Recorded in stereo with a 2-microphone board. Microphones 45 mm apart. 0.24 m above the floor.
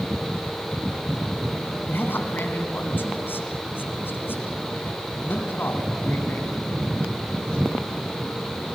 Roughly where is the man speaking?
Left.